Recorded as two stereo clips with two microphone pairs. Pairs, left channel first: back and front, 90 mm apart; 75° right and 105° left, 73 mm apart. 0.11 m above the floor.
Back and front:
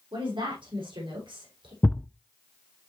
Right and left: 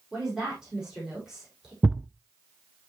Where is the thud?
145° left, 0.5 m.